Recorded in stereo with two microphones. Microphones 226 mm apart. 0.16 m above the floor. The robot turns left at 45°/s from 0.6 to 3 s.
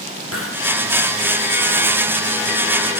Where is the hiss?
75° left (ahead or behind), 2.5 m.